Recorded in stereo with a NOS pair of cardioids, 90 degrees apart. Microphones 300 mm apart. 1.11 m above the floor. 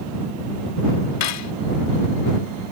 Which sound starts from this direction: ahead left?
Cutlery clinking, at 1.2 s.